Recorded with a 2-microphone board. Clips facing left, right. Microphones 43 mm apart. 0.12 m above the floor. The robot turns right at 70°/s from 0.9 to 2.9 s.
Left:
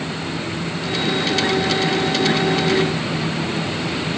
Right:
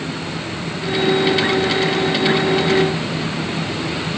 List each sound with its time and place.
Only background noise.